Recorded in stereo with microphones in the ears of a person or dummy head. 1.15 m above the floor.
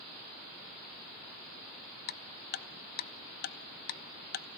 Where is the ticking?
50° left (ahead or behind), 0.6 m.